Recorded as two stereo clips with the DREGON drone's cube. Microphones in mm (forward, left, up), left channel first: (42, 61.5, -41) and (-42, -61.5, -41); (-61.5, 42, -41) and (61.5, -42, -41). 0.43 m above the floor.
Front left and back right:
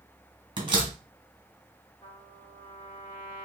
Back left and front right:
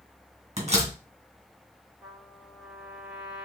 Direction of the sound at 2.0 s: 25° left.